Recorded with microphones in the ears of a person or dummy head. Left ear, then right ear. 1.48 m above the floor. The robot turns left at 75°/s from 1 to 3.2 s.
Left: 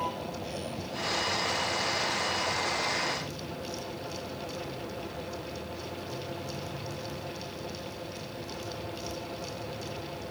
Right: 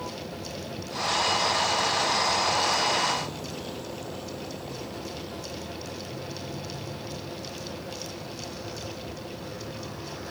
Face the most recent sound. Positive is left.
turn(degrees=-55)  # may be behind; listen again after turning